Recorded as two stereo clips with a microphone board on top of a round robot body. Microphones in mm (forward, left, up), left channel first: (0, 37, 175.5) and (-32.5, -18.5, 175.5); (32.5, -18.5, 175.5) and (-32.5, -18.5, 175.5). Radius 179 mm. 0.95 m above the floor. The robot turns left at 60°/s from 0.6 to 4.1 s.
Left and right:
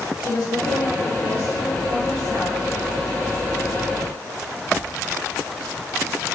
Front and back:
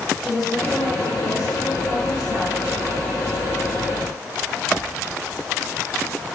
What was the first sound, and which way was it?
A woman speaking, 85° left.